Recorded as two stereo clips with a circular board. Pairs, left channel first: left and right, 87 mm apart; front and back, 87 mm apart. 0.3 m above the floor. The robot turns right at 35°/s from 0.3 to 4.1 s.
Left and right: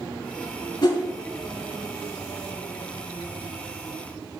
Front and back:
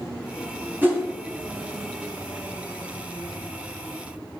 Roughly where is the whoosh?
Behind left.